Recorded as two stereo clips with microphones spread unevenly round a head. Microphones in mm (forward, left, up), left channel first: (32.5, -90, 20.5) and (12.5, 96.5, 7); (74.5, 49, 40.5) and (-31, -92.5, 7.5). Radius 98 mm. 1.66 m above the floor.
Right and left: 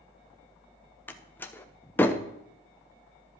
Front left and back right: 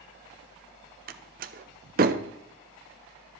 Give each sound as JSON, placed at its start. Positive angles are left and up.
{"t": 1.1, "sound": "a door slam", "azimuth_deg": -150, "distance_m": 0.6}